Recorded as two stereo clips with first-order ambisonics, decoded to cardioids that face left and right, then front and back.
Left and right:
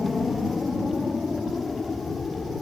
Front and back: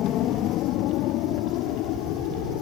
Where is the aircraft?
20° left; by 2.6 s 15° left.